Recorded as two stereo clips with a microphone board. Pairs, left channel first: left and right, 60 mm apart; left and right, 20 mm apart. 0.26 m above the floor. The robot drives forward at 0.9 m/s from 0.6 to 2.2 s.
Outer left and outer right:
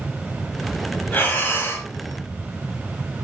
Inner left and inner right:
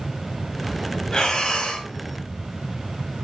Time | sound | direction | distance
1.1 | breathing | 35° left (ahead or behind) | 2.5 m